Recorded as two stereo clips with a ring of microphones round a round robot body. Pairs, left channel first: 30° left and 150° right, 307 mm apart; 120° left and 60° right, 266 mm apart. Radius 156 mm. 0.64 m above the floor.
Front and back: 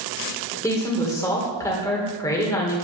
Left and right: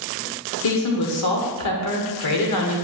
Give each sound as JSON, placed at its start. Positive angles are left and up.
{"t": 0.6, "sound": "a woman speaking", "azimuth_deg": 110, "distance_m": 1.9}